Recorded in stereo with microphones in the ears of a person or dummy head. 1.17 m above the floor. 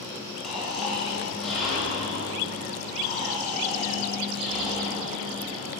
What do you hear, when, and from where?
0.4 s snoring: centre (ahead or behind), 1.9 m